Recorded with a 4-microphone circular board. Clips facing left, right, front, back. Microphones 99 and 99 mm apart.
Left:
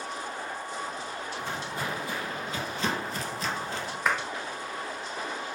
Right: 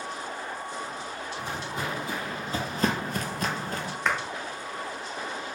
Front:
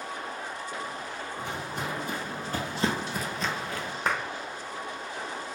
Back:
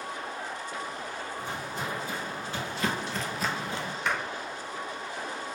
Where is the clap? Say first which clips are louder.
Even, front 2 dB; 10° left, 0.7 m.